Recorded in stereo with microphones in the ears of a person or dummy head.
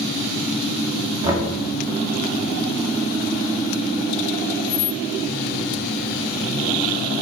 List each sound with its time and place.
1.2 s knocking: 20° right (ahead or behind), 1.8 m